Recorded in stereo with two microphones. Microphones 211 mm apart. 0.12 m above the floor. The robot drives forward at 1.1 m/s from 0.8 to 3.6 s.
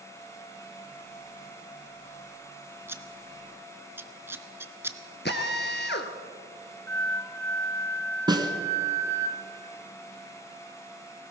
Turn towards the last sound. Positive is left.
turn(degrees=-20)  # may be behind; listen again after turning